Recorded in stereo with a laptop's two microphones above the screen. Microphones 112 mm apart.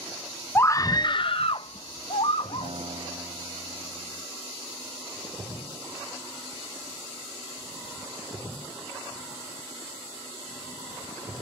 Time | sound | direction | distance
0.6 | a scream | 20° left (ahead or behind) | ?
2.6 | a guitar | 65° right (ahead or behind) | ?